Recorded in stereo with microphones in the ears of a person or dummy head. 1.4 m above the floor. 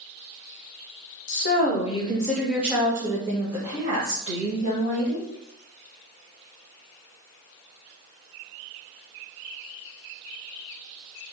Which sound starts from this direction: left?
A woman speaking, at 1.3 s.